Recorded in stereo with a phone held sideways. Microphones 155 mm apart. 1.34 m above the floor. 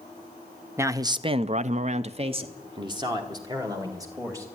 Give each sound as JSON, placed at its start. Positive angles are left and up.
{"t": 0.8, "sound": "a man speaking", "side_deg": -15, "distance_m": 0.8}